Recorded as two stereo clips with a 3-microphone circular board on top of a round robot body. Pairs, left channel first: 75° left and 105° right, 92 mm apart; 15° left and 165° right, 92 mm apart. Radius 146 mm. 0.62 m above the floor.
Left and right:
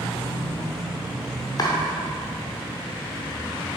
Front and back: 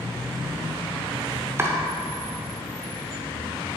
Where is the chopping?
130° left, 0.6 m.